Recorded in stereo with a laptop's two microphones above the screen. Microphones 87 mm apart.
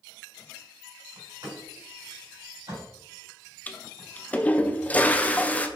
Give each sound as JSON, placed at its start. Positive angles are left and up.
{"t": 1.1, "sound": "a door slam", "side_deg": -40, "distance_m": 2.5}
{"t": 3.7, "sound": "a toilet flushing", "side_deg": 20, "distance_m": 0.5}